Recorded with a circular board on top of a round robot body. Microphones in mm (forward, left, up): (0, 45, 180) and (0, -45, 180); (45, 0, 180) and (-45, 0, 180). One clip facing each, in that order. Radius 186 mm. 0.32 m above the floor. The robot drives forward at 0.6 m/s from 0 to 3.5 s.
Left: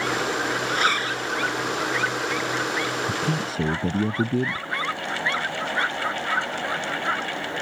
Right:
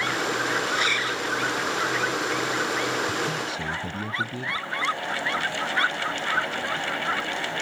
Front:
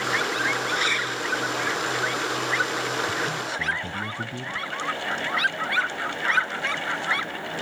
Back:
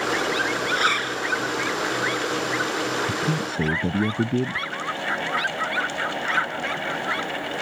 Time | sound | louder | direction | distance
0.7 | a zipper | left 2 dB, back 3 dB | 135° left | ?
3.1 | a man speaking | left 2 dB, back 2 dB | 140° left | ?